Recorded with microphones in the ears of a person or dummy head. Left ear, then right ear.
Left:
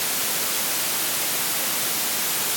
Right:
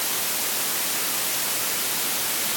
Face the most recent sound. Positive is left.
No sound to turn to.